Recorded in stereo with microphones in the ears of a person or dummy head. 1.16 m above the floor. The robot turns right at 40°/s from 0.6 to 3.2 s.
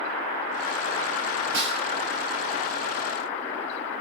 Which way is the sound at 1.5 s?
80° right.